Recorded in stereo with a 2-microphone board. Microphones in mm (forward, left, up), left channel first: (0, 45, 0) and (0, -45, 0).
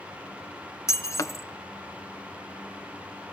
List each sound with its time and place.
0.9 s breaking glass: 35° left (ahead or behind), 0.9 m